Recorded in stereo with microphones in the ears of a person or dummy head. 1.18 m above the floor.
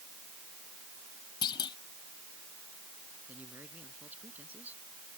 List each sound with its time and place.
1.4 s a clunk: 25° left (ahead or behind)
3.3 s a man speaking: 10° right (ahead or behind)